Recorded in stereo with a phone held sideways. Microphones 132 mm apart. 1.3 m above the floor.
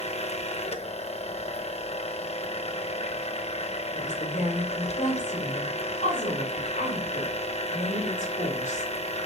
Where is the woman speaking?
70° left (ahead or behind), 4.5 m.